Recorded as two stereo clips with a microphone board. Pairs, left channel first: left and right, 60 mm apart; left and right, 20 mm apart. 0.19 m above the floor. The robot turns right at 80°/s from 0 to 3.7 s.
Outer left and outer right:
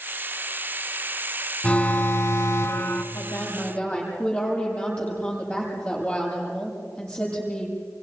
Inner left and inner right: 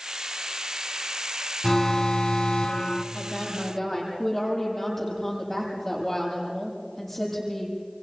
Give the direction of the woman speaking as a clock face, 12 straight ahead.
8 o'clock.